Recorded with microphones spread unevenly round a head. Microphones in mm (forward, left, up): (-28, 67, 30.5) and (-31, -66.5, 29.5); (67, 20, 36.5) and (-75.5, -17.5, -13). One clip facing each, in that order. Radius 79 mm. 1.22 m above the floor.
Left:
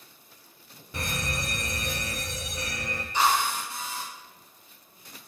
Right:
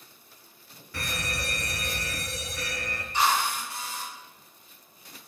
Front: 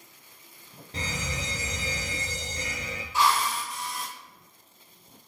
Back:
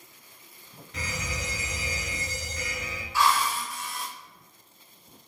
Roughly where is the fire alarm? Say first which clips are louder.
Left 2 dB, front 1 dB; left.